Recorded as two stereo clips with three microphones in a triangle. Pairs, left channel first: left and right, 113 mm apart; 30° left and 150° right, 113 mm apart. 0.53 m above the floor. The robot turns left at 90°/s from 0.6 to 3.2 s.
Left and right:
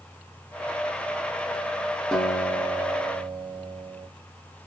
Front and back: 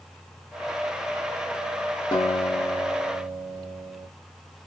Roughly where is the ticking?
No ticking in this recording.